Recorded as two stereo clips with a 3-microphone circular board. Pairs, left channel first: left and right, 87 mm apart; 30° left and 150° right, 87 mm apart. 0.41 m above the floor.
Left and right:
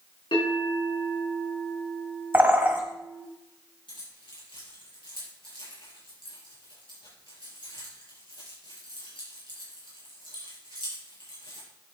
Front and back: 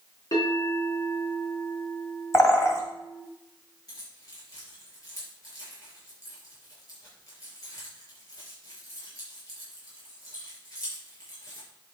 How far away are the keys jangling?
About 5.5 m.